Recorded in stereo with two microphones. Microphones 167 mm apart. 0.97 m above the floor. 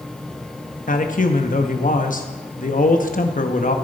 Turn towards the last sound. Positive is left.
turn(degrees=50)  # may be behind; listen again after turning